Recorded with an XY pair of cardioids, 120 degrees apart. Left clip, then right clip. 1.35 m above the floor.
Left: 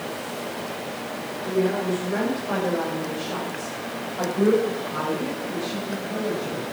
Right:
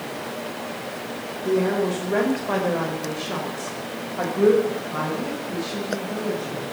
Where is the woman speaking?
40° right, 4.5 m; by 6.6 s 5° right, 7 m.